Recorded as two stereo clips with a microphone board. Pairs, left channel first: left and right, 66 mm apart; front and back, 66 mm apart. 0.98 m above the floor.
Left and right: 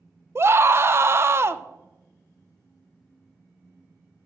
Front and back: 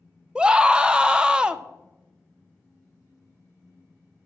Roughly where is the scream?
Right.